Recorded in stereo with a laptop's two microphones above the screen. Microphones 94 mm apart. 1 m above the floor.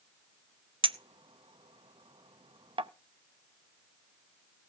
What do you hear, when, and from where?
0.8 s a clink: 70° right (ahead or behind), 0.7 m